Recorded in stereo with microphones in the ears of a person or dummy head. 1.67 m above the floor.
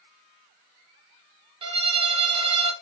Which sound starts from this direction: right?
A violin, at 1.6 s.